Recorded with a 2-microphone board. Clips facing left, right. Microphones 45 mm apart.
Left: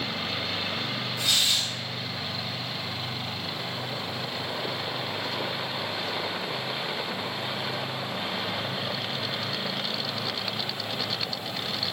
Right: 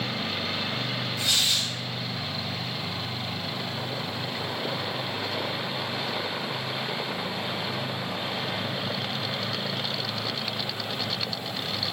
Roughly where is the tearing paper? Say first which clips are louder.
Left 1 dB; centre.